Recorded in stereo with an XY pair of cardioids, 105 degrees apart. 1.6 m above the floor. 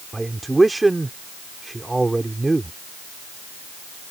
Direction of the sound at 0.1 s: 15° right.